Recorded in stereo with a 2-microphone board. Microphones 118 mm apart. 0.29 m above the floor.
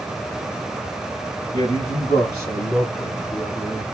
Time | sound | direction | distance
1.5 | a man speaking | 35° left (ahead or behind) | 1.1 m